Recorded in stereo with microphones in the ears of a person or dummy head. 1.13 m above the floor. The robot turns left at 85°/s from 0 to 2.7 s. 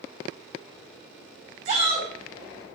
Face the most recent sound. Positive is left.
turn(degrees=130)